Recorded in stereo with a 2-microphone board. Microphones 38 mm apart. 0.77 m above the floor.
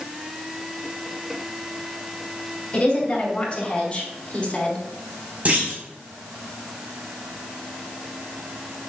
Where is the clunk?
40° right (ahead or behind), 5 m.